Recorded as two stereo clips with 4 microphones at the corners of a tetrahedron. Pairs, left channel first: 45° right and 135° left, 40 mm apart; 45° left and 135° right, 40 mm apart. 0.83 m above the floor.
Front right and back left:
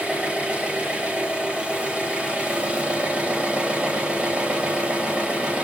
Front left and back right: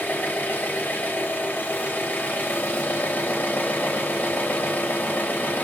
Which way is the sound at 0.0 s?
80° left.